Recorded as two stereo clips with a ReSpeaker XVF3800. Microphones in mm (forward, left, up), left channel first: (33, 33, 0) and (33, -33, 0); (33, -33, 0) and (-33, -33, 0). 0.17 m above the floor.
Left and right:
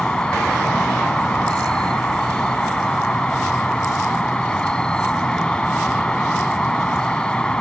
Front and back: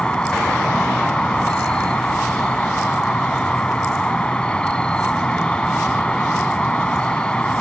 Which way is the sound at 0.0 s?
40° left.